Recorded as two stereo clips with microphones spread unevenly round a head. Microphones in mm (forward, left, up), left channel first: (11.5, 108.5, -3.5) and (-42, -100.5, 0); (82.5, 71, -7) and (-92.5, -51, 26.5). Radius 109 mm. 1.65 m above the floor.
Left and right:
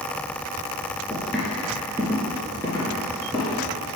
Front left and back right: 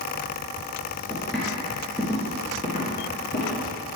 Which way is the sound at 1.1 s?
160° left.